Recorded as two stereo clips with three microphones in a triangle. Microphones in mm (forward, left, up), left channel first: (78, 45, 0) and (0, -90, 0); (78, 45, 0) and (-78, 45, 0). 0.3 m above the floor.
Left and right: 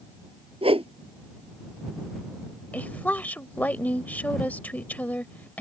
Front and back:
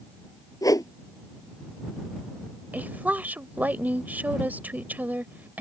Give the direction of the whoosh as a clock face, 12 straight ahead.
2 o'clock.